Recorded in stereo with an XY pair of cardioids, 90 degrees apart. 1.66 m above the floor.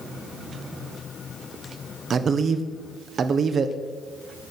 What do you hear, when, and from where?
2.1 s a man speaking: 55° right, 1.3 m